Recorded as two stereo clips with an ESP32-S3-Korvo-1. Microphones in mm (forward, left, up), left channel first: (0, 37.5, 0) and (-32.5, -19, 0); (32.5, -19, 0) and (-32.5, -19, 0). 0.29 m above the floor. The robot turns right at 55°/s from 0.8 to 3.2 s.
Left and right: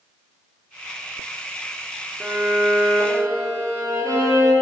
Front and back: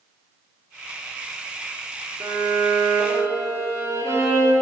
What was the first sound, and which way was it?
A violin, 160° left.